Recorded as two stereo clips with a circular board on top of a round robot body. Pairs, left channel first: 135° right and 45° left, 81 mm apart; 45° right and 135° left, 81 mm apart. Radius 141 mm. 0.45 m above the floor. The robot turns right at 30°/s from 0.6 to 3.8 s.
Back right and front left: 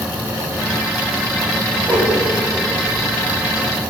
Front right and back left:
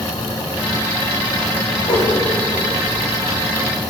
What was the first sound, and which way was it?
A whoosh, 25° right.